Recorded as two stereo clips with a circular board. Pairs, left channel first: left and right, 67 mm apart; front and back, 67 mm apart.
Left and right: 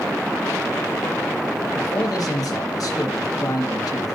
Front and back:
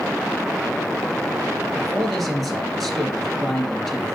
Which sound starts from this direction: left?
A man speaking, at 1.8 s.